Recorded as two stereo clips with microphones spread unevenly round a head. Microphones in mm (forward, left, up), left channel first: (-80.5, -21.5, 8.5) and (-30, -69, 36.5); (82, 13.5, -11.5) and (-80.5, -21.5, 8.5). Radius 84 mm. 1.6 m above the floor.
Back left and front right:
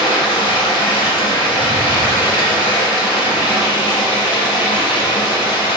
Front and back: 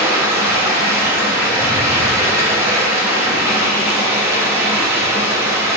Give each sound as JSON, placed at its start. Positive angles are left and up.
{"t": 0.0, "sound": "running water", "azimuth_deg": 130, "distance_m": 1.2}